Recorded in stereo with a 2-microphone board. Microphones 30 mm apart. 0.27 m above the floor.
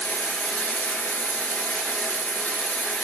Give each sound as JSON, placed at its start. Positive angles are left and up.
{"t": 0.0, "sound": "running water", "side_deg": 80, "distance_m": 1.1}